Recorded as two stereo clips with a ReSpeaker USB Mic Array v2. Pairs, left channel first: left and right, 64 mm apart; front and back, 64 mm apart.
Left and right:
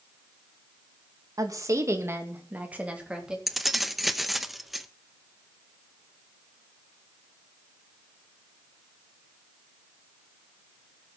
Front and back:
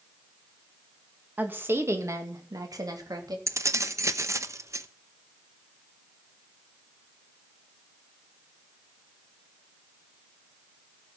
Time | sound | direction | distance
1.4 | a woman speaking | 115° right | 2 m
3.5 | keys jangling | 175° right | 0.8 m